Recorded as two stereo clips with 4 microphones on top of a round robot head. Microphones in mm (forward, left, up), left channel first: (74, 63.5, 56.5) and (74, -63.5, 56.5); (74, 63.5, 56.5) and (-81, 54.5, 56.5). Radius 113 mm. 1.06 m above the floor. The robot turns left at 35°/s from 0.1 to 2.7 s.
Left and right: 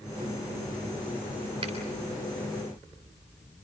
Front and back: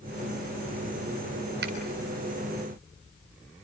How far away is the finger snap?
About 3.5 m.